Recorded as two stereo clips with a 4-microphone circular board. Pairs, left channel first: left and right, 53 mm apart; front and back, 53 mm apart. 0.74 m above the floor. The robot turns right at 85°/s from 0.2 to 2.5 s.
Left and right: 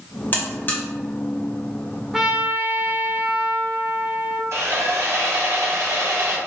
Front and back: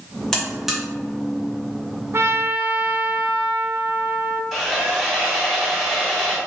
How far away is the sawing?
About 1.3 m.